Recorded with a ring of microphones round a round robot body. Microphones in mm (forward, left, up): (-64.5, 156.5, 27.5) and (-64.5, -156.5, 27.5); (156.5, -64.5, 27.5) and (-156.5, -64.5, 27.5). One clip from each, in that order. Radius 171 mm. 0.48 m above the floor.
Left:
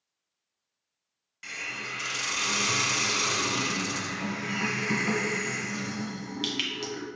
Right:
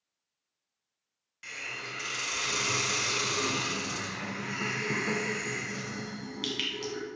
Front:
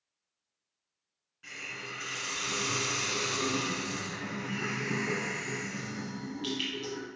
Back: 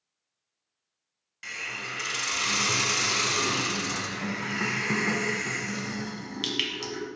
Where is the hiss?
175° left, 1.4 m.